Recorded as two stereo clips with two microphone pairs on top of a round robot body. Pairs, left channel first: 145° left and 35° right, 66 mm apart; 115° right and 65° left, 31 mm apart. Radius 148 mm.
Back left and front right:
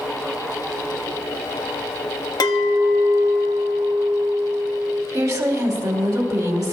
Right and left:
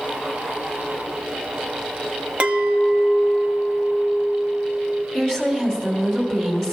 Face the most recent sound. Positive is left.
turn(degrees=-35)